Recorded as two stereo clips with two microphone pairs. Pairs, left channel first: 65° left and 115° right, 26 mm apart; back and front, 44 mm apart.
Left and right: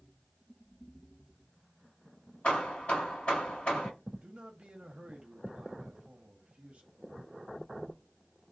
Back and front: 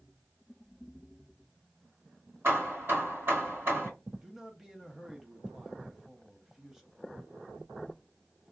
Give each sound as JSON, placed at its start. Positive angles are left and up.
{"t": 2.4, "sound": "hammering", "azimuth_deg": 30, "distance_m": 2.0}
{"t": 4.2, "sound": "a man speaking", "azimuth_deg": -85, "distance_m": 0.9}